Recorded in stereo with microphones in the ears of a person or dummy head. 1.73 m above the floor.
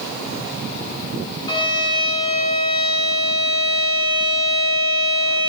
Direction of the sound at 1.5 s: 25° left (ahead or behind).